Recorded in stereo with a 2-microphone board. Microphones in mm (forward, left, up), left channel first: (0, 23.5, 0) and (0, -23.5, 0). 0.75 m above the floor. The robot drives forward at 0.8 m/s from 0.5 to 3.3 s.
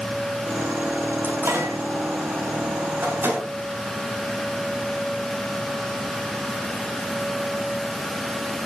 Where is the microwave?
70° right (ahead or behind), 4.5 m; by 3.5 s 50° right (ahead or behind), 5 m.